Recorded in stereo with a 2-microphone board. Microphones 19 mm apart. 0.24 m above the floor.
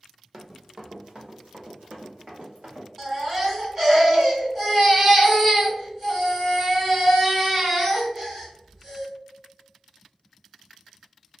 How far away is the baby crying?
About 1.2 m.